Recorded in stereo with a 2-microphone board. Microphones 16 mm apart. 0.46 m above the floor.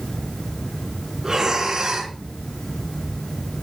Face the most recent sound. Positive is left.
turn(degrees=-30)  # may be behind; listen again after turning